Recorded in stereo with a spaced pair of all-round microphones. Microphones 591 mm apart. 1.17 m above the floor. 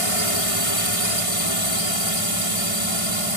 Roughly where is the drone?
Left.